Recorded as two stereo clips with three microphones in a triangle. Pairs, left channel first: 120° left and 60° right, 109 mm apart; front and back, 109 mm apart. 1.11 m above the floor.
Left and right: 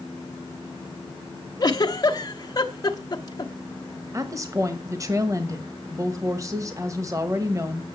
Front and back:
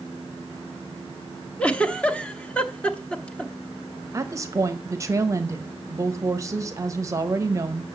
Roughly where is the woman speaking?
Behind right.